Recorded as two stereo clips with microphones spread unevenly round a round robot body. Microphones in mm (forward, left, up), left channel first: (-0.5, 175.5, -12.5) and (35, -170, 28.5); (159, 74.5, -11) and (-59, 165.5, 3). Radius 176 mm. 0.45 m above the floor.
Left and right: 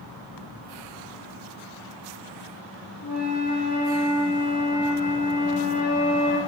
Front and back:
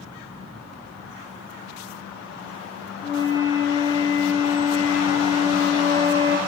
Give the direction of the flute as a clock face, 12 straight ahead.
10 o'clock.